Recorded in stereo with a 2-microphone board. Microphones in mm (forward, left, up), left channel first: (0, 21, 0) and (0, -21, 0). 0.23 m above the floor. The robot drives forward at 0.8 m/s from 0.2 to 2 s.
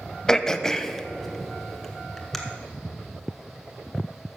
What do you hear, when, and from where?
0.3 s throat clearing: 15° left (ahead or behind), 0.5 m; by 2.4 s 5° left (ahead or behind), 1.3 m